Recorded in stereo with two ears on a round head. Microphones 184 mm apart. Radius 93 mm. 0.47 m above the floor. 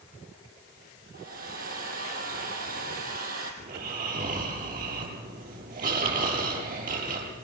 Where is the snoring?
45° right (ahead or behind), 6.5 m.